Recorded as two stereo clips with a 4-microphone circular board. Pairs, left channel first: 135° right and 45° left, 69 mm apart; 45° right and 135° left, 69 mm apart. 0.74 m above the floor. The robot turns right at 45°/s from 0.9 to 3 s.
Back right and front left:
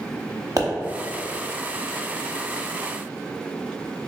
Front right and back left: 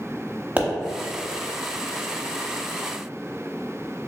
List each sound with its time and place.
0.6 s a pop: 70° left, 0.8 m